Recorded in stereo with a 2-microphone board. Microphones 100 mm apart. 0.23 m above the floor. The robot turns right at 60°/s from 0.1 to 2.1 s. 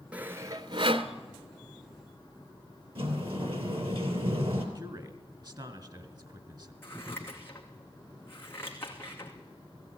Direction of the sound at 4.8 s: 45° right (ahead or behind).